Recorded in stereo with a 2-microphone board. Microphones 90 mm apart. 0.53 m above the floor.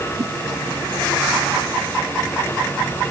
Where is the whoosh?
55° right (ahead or behind).